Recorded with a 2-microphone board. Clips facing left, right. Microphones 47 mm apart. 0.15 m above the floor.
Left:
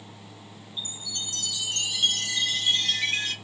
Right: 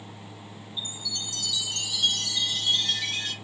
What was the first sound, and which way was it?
A chime, 40° left (ahead or behind).